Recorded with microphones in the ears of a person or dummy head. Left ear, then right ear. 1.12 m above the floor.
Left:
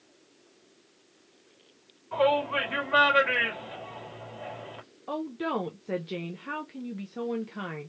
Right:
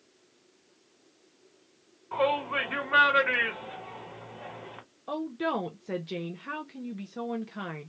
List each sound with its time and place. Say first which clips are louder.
2.1 s a shout: left 2 dB; 20° right (ahead or behind), 2 m
5.1 s a woman speaking: right 1 dB; 5° right (ahead or behind), 0.5 m